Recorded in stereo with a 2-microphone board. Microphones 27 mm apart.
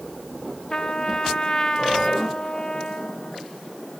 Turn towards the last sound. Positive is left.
turn(degrees=30)  # may be behind; listen again after turning